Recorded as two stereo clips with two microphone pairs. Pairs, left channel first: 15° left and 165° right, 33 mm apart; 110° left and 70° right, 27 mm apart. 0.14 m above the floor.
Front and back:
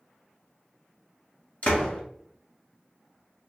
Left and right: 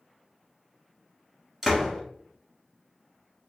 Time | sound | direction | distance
1.6 | a door slam | 10° left | 1.3 m